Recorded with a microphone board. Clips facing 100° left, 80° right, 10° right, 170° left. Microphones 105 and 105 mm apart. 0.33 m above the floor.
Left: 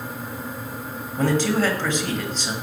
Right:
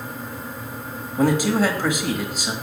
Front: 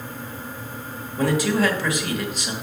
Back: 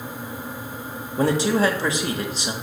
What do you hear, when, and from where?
1.2 s a man speaking: 150° right, 1.2 m